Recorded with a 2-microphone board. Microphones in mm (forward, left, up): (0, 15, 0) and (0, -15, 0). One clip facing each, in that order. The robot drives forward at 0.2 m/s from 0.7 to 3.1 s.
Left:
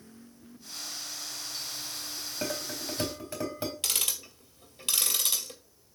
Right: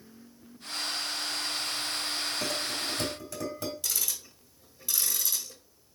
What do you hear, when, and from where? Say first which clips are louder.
2.4 s dishes clattering: right 3 dB; 30° left (ahead or behind), 3.5 m
3.8 s ticking: left 2 dB; 80° left, 2 m